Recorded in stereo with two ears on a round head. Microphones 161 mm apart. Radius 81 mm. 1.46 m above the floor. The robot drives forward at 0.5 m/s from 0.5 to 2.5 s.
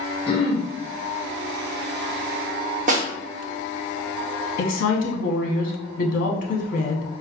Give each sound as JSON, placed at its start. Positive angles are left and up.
{"t": 0.3, "sound": "throat clearing", "side_deg": 30, "distance_m": 0.8}
{"t": 2.9, "sound": "a snare drum", "side_deg": -45, "distance_m": 0.7}
{"t": 4.6, "sound": "a woman speaking", "side_deg": 45, "distance_m": 0.7}